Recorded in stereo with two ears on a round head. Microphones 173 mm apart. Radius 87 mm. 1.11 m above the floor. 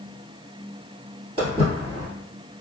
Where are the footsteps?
30° right (ahead or behind), 1.5 m.